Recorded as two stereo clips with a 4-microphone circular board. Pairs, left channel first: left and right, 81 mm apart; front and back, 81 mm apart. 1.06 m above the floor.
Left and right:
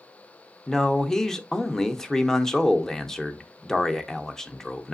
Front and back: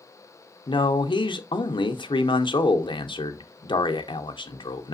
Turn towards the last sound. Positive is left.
turn(degrees=5)